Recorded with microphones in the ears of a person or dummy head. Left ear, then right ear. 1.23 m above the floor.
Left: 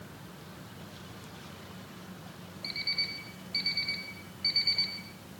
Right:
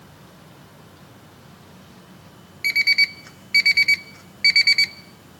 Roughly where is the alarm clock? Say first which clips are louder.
Right 15 dB; right.